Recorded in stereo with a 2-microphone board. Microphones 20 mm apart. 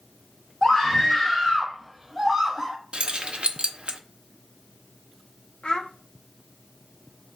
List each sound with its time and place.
0.6 s a scream: 30° left (ahead or behind), 1.6 m; by 2.8 s 15° right (ahead or behind), 1.4 m
2.9 s keys jangling: 55° right (ahead or behind), 0.6 m
5.6 s a child speaking: 50° left (ahead or behind), 0.6 m